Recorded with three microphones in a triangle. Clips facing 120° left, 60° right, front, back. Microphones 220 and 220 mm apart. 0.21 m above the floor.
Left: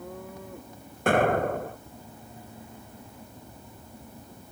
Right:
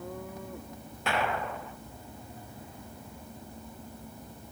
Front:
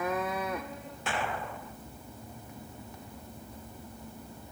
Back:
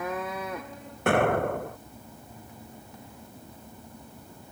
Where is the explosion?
155° left.